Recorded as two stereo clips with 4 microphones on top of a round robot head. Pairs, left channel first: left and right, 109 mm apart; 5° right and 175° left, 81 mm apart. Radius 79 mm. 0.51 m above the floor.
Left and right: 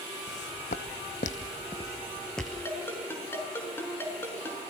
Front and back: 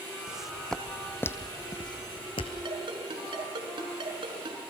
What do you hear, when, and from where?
0.3 s footsteps: 95° left, 1.8 m; by 2.5 s straight ahead, 1.7 m
2.6 s a ringtone: 160° left, 5.5 m